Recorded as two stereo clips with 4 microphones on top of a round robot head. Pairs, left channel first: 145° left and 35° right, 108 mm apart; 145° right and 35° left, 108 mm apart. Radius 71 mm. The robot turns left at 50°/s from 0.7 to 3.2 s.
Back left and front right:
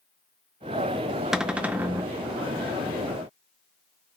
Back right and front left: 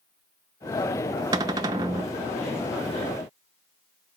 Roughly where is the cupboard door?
Ahead left.